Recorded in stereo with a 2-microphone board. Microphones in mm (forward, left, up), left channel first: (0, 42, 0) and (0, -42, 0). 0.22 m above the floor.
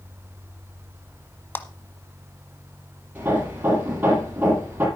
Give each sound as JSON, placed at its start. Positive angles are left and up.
{"t": 1.6, "sound": "a clap", "side_deg": 25, "distance_m": 1.0}
{"t": 3.1, "sound": "hammering", "side_deg": -20, "distance_m": 6.0}